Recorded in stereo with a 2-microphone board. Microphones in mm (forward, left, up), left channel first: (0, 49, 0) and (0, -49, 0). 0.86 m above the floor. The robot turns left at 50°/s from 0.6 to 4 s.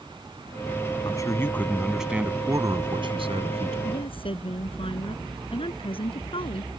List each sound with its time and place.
1.1 s a man speaking: 45° left; by 3.8 s 90° right
3.9 s a woman speaking: 55° left (ahead or behind); by 6.7 s 65° left (ahead or behind)